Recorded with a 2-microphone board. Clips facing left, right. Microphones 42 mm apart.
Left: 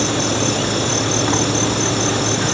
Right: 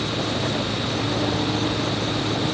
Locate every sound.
0.0 s an insect: 80° left